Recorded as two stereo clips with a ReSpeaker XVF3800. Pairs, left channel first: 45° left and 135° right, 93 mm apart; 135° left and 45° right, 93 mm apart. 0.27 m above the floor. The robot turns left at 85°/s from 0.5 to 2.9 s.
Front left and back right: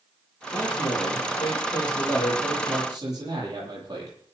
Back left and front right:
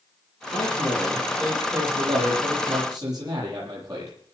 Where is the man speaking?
115° left, 9.5 m; by 4.2 s 90° right, 9.5 m.